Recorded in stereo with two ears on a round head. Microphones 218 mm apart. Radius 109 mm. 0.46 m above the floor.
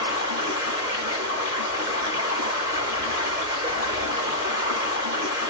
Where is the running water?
25° right (ahead or behind), 1.2 m.